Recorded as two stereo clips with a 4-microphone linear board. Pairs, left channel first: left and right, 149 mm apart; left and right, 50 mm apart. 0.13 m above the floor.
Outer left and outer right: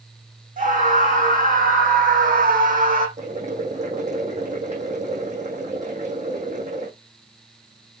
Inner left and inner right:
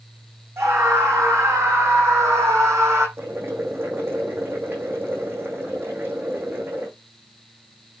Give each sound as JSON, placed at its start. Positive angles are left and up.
{"t": 0.6, "sound": "a scream", "side_deg": -60, "distance_m": 7.0}
{"t": 3.2, "sound": "boiling", "side_deg": -50, "distance_m": 3.5}